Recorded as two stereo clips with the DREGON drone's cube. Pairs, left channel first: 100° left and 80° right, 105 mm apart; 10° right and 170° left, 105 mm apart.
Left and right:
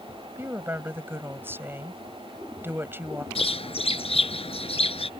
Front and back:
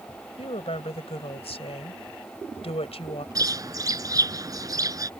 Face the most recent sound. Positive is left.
turn(degrees=115)